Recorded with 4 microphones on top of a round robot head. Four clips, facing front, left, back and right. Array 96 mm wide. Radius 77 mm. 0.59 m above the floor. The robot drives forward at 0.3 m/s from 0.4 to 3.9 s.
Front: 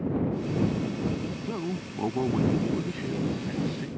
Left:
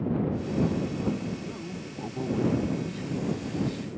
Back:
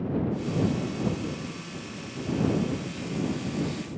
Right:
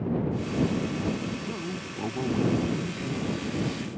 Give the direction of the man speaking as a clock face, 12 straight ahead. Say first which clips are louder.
Right 3 dB, front 6 dB; 12 o'clock.